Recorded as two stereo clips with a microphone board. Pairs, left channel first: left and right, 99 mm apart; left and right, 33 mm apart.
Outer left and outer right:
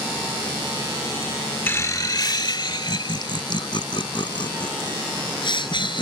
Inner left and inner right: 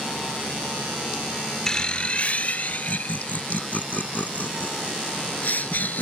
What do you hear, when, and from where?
1.7 s laughter: 20° left (ahead or behind); by 6.0 s 55° left (ahead or behind)